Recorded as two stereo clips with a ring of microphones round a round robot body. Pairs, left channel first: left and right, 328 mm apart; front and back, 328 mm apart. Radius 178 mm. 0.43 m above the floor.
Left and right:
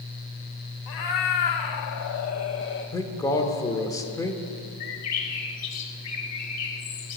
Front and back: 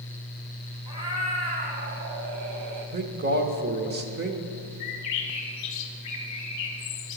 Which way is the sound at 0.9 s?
100° left.